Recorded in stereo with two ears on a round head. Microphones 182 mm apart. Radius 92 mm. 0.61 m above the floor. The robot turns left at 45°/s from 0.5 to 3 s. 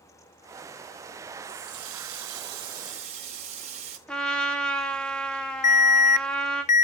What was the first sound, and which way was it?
A running tap, 75° right.